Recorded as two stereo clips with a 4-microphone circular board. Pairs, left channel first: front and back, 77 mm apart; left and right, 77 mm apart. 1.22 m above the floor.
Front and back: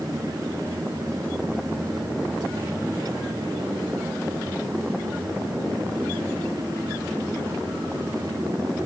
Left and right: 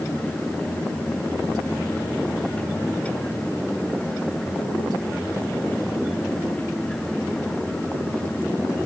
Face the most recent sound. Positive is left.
No sound to turn to.